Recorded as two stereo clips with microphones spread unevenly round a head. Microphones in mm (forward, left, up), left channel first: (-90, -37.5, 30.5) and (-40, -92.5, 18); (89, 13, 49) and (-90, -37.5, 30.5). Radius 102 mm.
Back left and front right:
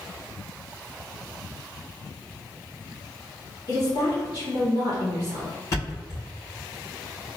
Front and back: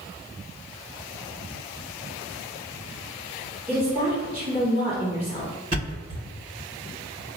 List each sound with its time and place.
3.7 s a woman speaking: 115° left, 2.0 m
5.7 s a thud: 130° left, 1.9 m